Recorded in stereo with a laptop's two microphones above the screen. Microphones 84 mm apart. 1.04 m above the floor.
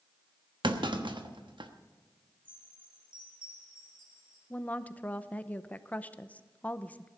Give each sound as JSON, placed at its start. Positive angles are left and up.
{"t": 0.6, "sound": "a clunk", "side_deg": -75, "distance_m": 1.0}
{"t": 2.5, "sound": "a chime", "side_deg": -75, "distance_m": 5.5}
{"t": 4.5, "sound": "a woman speaking", "side_deg": 20, "distance_m": 0.7}